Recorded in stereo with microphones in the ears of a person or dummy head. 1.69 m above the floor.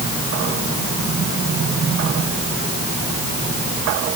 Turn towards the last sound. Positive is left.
No sound to turn to.